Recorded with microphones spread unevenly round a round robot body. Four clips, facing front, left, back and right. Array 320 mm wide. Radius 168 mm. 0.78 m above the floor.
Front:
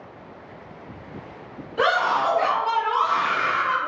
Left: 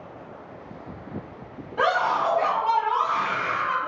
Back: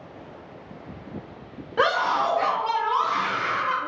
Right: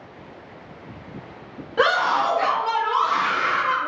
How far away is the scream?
About 1.1 m.